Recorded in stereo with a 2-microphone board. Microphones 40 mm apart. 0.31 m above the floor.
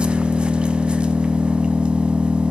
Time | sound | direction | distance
0.0 | an engine running | 30° right (ahead or behind) | 0.9 m